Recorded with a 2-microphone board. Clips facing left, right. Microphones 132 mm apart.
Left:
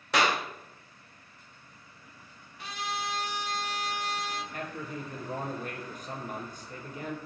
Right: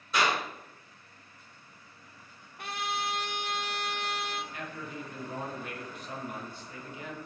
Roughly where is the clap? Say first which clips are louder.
Left 2 dB; left.